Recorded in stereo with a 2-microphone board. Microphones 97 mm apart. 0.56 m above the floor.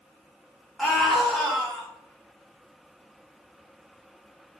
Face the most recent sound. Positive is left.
turn(degrees=0)  # may be behind; listen again after turning